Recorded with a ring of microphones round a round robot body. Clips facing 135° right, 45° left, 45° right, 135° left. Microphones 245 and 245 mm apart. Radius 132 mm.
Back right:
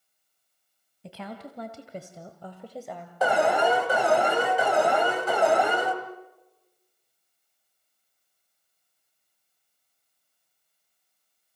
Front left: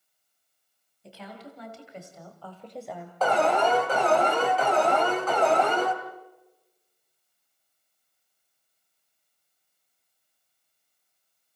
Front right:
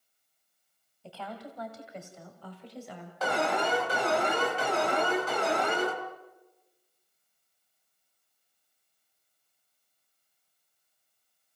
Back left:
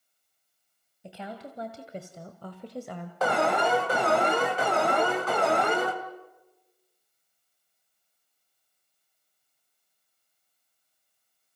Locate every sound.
1.0 s a woman speaking: 150° right, 2.5 m; by 3.1 s 125° left, 1.8 m
3.2 s an alarm: 150° left, 2.5 m